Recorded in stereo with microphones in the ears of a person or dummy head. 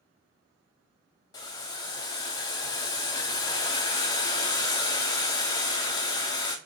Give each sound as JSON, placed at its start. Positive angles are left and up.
{"t": 1.3, "sound": "boiling", "side_deg": 20, "distance_m": 0.8}